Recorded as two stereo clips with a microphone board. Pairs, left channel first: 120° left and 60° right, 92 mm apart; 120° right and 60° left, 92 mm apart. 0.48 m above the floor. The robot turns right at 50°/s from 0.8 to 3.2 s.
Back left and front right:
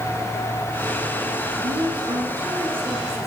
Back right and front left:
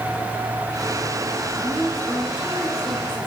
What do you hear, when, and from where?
1.6 s a woman speaking: 50° right, 5.5 m; by 3.3 s 30° left, 5.5 m